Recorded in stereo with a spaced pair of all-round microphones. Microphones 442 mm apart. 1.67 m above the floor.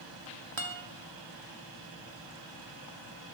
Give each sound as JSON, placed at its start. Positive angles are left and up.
{"t": 0.6, "sound": "a guitar", "side_deg": -85, "distance_m": 1.1}